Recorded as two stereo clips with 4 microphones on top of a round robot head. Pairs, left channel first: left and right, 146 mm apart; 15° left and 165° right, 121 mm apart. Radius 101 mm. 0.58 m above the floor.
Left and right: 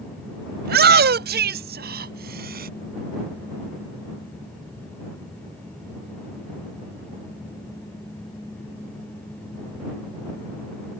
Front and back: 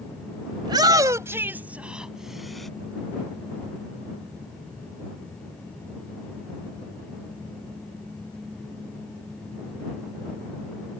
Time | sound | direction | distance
0.6 | a shout | 105° right | ?